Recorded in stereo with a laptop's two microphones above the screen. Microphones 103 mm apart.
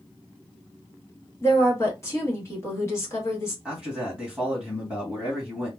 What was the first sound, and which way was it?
A woman speaking, 25° left (ahead or behind).